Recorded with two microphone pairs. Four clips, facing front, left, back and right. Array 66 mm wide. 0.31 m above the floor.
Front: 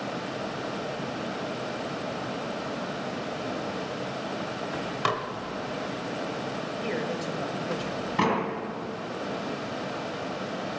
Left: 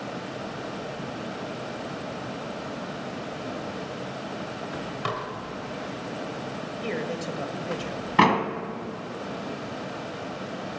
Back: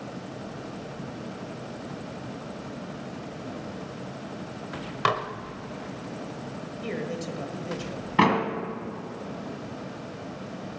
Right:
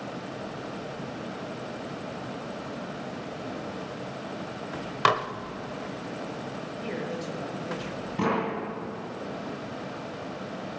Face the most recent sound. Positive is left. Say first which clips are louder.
# left 7 dB, back 4 dB
turn(degrees=115)